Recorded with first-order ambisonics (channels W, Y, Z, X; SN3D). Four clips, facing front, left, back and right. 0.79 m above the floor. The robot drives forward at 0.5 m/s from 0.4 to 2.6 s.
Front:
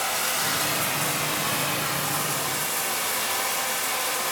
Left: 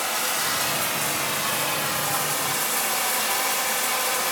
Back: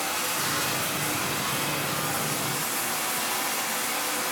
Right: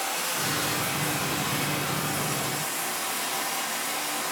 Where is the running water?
45° left, 2.5 m; by 4.3 s 65° left, 2 m.